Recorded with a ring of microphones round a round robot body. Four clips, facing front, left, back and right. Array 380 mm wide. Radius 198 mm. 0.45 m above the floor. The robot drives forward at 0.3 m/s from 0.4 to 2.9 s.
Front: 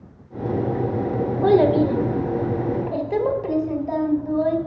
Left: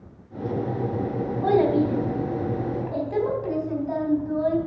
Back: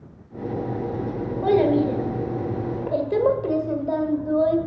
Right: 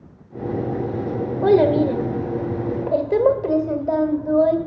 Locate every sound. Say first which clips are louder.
1.4 s a child speaking: right 5 dB, front 2 dB; 80° right, 1.4 m; by 4.6 s 100° right, 1.4 m